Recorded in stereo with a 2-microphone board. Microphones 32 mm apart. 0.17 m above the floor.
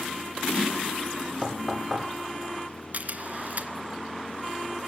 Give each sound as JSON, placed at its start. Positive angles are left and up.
{"t": 1.4, "sound": "knocking", "side_deg": -5, "distance_m": 5.0}
{"t": 2.9, "sound": "a camera shutter", "side_deg": -50, "distance_m": 2.0}